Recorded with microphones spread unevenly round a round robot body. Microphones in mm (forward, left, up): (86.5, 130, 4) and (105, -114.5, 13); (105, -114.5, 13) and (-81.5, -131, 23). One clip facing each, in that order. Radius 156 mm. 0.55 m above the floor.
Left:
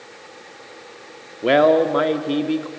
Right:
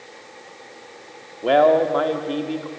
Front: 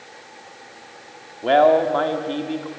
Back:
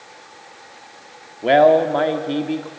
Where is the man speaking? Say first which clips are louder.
Left 1 dB, back 2 dB; 120° left, 1.4 m.